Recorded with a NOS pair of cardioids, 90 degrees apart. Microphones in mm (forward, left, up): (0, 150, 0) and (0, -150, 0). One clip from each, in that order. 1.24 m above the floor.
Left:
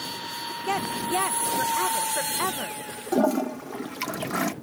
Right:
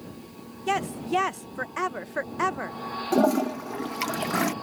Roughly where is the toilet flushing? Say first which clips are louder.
Right 1 dB; ahead.